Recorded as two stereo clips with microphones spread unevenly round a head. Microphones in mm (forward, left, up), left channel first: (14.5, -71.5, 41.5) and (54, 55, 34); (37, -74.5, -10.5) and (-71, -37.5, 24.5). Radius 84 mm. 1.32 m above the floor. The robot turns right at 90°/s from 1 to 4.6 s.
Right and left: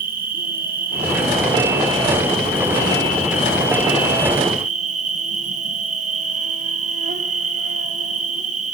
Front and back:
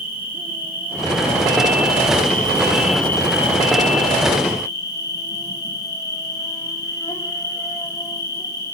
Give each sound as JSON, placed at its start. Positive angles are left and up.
{"t": 0.0, "sound": "an insect", "azimuth_deg": 80, "distance_m": 2.0}